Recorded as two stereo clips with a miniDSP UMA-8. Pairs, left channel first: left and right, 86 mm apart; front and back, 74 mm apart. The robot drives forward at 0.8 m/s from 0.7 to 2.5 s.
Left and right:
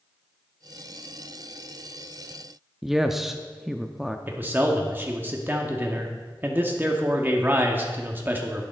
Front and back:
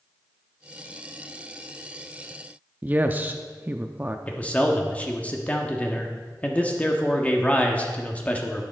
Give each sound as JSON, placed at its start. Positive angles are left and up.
{"t": 2.8, "sound": "a woman speaking", "azimuth_deg": -170, "distance_m": 0.6}
{"t": 4.3, "sound": "a man speaking", "azimuth_deg": -50, "distance_m": 1.0}